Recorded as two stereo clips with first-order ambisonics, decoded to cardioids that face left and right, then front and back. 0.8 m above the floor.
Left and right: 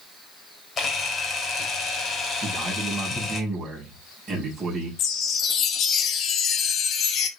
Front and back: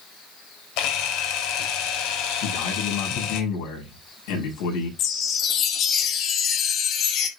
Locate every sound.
0.8 s a camera shutter: 25° left, 2.5 m
2.4 s a man speaking: 15° right, 6.5 m
5.0 s a chime: 40° left, 1.4 m